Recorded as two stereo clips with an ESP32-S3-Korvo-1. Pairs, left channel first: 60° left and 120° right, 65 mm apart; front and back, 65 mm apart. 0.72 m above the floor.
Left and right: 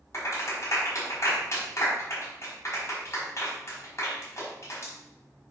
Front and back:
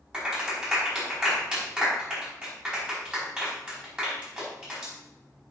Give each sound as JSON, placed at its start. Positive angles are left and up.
{"t": 0.1, "sound": "a clap", "azimuth_deg": 105, "distance_m": 5.0}